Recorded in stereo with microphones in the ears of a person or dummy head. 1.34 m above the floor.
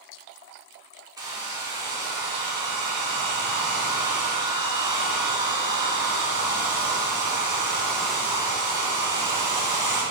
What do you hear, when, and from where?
1.2 s a hair dryer: 20° right (ahead or behind), 1.1 m